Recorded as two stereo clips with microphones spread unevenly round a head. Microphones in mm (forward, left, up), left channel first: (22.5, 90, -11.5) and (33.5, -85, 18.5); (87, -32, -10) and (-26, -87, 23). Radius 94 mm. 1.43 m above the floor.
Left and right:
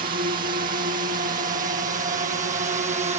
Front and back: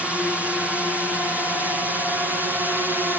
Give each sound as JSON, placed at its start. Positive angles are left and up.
{"t": 0.0, "sound": "a drone", "azimuth_deg": -60}